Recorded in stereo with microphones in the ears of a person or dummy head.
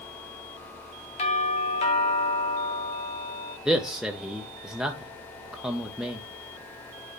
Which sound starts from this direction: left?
A doorbell, at 1.2 s.